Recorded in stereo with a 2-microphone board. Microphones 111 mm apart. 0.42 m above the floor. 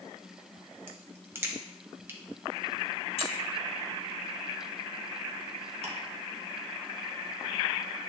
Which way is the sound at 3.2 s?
50° left (ahead or behind).